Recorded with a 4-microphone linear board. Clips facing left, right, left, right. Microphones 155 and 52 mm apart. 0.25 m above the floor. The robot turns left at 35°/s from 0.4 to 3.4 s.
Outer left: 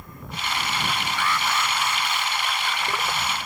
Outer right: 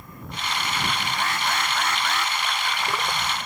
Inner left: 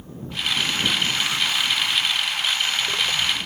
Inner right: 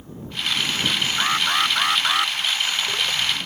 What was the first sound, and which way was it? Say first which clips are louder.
An alarm: outer left 2 dB, inner right 3 dB; 40° right.